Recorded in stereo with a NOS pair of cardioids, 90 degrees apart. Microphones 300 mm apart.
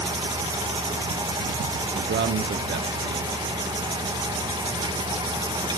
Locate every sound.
0.0 s a fan: 15° right, 1.4 m
1.9 s a man speaking: 35° right, 1.1 m